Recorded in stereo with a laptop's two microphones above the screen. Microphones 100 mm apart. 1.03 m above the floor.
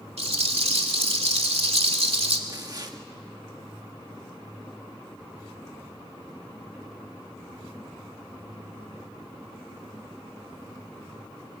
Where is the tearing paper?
40° right (ahead or behind), 1.6 m.